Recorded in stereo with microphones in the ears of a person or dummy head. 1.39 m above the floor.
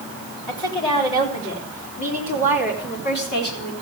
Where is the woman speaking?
20° left (ahead or behind), 4 m; by 3.7 s 55° left (ahead or behind), 4.5 m.